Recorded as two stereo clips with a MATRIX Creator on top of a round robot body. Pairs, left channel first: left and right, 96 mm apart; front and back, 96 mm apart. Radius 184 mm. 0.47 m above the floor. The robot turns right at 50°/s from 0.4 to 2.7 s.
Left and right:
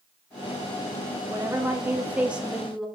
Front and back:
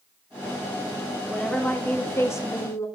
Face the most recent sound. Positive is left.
turn(degrees=-5)